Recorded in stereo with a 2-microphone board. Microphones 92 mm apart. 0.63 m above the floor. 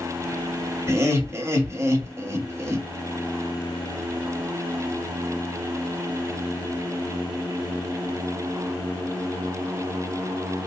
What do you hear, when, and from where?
0.9 s laughter: 30° right (ahead or behind), 0.8 m